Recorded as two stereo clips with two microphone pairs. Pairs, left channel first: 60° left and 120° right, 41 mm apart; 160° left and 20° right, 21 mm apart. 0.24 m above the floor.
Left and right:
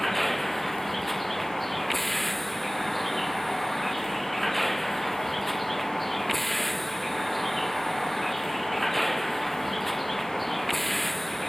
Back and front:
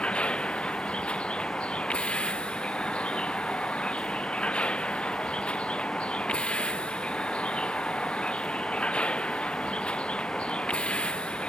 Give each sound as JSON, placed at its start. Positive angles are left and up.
{"t": 0.0, "sound": "a vehicle", "azimuth_deg": 145}